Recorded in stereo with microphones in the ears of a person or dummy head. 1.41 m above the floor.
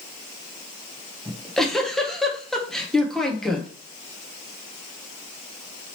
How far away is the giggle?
About 0.6 m.